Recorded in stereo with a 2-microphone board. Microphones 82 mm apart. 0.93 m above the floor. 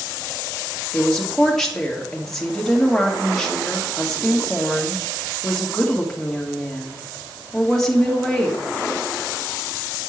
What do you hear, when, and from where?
0.9 s a woman speaking: 5° left (ahead or behind), 2 m